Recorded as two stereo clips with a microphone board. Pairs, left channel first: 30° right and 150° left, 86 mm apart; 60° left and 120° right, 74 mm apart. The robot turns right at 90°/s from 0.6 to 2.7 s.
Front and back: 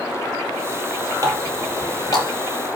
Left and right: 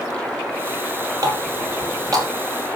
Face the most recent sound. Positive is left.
turn(degrees=-30)